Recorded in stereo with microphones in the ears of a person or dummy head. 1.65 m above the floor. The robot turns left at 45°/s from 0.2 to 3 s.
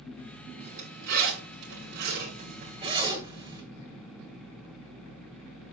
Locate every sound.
0.6 s a zipper: 35° right (ahead or behind), 2.5 m; by 3.6 s 25° right (ahead or behind), 2.5 m